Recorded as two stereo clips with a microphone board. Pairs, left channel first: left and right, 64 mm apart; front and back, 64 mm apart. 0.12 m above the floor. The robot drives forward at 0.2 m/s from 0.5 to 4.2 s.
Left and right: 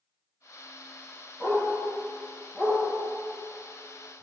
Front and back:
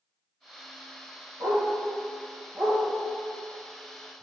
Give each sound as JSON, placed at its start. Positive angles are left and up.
{"t": 1.4, "sound": "a dog barking", "azimuth_deg": 165, "distance_m": 1.4}